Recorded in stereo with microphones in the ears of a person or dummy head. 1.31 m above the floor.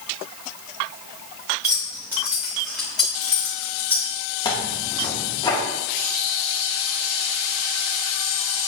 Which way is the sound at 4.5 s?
30° left (ahead or behind).